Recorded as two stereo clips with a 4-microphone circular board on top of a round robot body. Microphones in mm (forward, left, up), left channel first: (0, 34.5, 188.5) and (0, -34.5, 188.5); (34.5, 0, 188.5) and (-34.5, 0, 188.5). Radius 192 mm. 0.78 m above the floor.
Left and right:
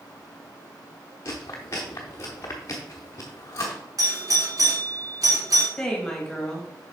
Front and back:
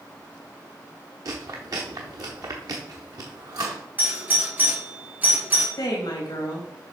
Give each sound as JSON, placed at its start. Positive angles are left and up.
{"t": 1.2, "sound": "chewing", "azimuth_deg": 140, "distance_m": 0.7}
{"t": 4.0, "sound": "a doorbell", "azimuth_deg": -115, "distance_m": 3.0}
{"t": 5.8, "sound": "a woman speaking", "azimuth_deg": 5, "distance_m": 2.0}